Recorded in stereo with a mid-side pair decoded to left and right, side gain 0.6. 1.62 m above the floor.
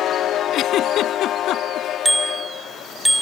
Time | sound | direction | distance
0.5 | a giggle | 60° left | ?
2.0 | a bicycle bell | straight ahead | ?